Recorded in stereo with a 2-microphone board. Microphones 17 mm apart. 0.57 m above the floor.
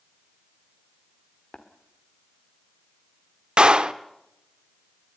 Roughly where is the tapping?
Left.